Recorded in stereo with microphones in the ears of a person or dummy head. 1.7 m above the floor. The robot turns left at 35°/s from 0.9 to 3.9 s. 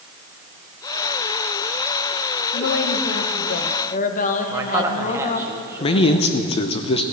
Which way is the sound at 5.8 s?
30° left (ahead or behind).